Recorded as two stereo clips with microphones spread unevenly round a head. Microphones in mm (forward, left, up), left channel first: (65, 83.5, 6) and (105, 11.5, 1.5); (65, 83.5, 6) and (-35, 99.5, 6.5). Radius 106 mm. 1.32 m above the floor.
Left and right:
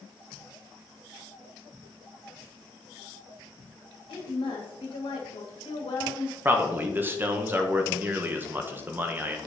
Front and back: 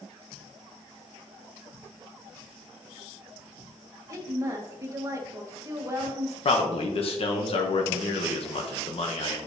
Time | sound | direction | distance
4.1 | a woman speaking | 110° left | 1.8 m
6.5 | a man speaking | straight ahead | 0.8 m